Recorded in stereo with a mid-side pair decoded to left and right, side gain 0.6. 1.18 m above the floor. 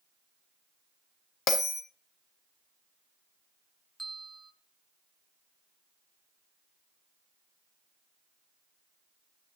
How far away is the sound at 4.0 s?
About 1.2 m.